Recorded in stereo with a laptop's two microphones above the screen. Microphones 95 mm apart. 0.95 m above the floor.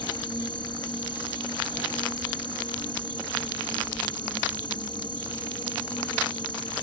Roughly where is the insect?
Left.